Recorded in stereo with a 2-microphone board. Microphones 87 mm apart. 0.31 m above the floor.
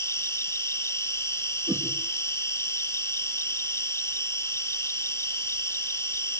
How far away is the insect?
About 1.9 m.